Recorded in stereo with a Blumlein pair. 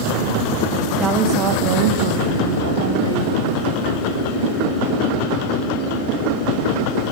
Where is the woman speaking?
15° right, 1.5 m; by 3.6 s 75° right, 3 m.